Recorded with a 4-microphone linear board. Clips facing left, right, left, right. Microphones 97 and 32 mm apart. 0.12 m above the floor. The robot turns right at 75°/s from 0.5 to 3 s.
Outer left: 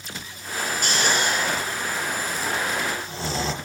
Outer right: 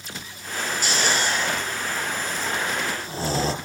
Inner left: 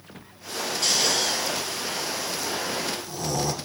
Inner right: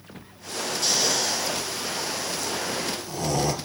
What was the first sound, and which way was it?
Snoring, 55° left (ahead or behind).